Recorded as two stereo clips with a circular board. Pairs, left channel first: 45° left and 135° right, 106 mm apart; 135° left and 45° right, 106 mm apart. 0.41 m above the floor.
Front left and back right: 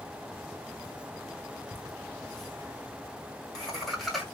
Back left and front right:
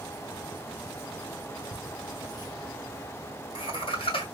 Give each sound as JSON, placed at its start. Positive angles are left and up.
{"t": 1.7, "sound": "laughter", "azimuth_deg": 125, "distance_m": 1.2}